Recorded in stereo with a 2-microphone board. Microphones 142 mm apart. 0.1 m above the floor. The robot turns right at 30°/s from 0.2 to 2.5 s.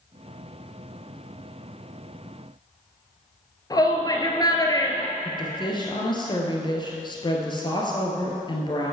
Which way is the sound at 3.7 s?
25° left (ahead or behind).